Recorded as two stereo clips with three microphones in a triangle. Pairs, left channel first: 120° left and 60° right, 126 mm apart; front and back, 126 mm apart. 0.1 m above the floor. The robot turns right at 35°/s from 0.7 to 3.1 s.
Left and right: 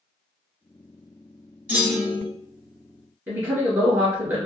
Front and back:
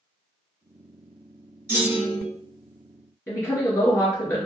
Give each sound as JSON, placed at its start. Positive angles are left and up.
{"t": 1.7, "sound": "a clunk", "azimuth_deg": -125, "distance_m": 1.5}
{"t": 3.3, "sound": "a woman speaking", "azimuth_deg": -20, "distance_m": 1.7}